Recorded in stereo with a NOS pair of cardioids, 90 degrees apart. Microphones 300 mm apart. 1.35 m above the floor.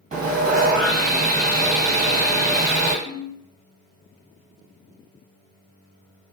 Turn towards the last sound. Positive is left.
turn(degrees=-15)